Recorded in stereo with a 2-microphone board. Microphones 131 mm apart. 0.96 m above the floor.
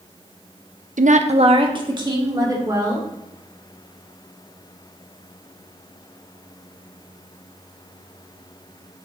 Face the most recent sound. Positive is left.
turn(degrees=-25)  # may be behind; listen again after turning